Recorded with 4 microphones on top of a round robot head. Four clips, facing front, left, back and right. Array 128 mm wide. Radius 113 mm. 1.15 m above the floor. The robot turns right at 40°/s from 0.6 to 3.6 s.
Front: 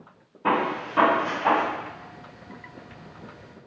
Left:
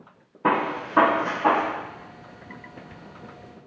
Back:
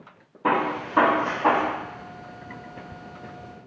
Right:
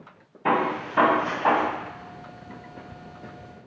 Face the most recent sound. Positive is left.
turn(degrees=-140)